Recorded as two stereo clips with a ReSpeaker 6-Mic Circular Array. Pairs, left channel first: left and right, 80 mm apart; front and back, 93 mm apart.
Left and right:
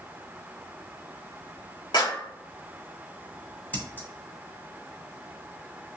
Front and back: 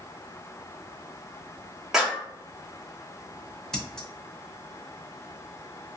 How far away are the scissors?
About 0.7 m.